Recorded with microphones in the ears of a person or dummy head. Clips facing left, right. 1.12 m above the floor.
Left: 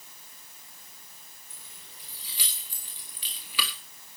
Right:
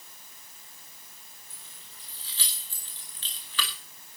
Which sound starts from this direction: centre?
Keys jangling, at 1.5 s.